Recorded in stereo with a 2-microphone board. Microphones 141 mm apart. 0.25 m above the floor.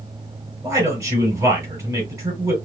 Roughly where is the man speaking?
Right.